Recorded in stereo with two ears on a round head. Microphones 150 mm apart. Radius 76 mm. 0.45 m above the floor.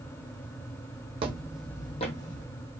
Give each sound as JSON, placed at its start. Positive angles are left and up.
{"t": 1.2, "sound": "footsteps", "side_deg": -35, "distance_m": 0.8}